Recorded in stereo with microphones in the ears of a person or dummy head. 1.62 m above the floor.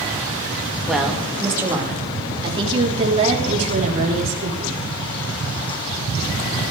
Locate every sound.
0.9 s a woman speaking: centre (ahead or behind), 2 m; by 4.9 s 45° right (ahead or behind), 5 m